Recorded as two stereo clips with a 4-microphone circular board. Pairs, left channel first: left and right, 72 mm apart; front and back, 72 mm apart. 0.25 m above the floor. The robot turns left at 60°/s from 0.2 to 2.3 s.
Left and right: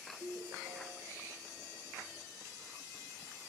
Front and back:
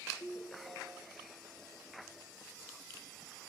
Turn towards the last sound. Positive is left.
turn(degrees=-175)